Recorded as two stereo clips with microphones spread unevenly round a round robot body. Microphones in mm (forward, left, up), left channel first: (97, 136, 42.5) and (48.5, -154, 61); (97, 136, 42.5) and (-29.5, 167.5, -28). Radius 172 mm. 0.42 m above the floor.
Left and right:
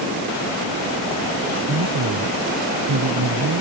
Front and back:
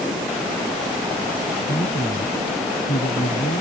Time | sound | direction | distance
1.7 | a man speaking | 60° right | ?